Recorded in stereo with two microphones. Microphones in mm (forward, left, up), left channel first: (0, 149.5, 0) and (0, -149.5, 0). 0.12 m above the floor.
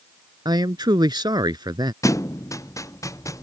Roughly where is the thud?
Centre.